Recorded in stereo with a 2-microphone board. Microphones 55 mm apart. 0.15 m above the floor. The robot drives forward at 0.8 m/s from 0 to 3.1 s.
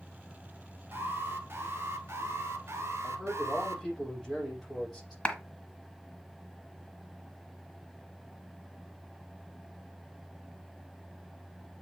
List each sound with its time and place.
0.9 s an alarm: 45° right (ahead or behind), 2.5 m; by 3.8 s 60° right (ahead or behind), 2 m
3.0 s a man speaking: centre (ahead or behind), 6.5 m
5.2 s a clap: 20° left (ahead or behind), 1.5 m